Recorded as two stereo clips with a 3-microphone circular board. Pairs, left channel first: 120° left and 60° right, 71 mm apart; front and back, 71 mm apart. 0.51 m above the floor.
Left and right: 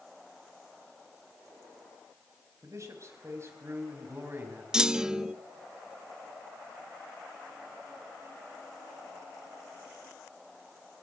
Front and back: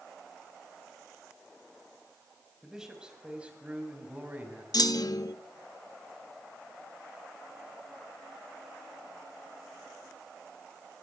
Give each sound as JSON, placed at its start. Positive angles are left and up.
{"t": 2.6, "sound": "a man speaking", "azimuth_deg": -100, "distance_m": 4.0}
{"t": 4.7, "sound": "a clunk", "azimuth_deg": 20, "distance_m": 0.5}